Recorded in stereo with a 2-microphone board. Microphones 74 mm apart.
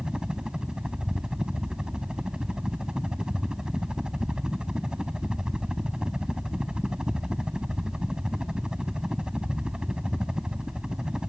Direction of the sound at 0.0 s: 10° right (ahead or behind).